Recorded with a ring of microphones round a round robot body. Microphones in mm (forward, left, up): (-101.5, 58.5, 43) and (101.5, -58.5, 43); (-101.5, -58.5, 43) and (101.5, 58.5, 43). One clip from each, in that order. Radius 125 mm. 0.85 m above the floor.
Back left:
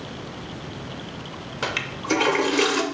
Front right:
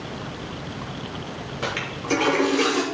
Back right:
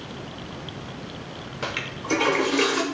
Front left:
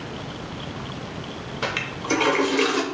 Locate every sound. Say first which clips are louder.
1.6 s a toilet flushing: back left 1 dB, front left 3 dB; 115° left, 0.6 m